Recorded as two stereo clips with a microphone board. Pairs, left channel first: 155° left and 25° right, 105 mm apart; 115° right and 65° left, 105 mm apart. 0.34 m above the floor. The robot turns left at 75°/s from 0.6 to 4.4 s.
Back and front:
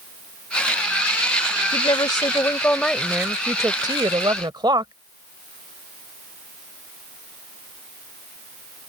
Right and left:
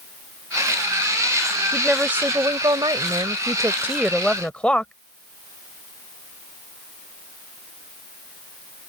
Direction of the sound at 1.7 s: 165° left.